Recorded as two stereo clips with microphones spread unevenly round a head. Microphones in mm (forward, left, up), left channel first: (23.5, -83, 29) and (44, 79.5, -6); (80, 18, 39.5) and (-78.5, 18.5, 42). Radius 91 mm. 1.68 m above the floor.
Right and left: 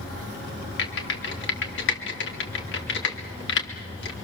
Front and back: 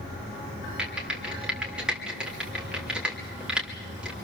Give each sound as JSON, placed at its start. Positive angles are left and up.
{"t": 0.8, "sound": "typing on a keyboard", "azimuth_deg": -95, "distance_m": 3.0}